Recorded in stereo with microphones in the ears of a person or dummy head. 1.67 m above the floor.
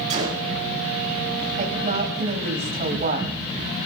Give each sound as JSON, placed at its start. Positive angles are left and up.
{"t": 0.1, "sound": "a gunshot", "side_deg": -30, "distance_m": 2.5}
{"t": 1.6, "sound": "a woman speaking", "side_deg": -40, "distance_m": 3.0}